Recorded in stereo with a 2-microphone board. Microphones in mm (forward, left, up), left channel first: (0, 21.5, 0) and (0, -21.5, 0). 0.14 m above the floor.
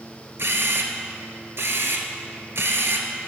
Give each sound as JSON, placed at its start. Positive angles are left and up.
{"t": 0.4, "sound": "a camera shutter", "side_deg": -65, "distance_m": 0.5}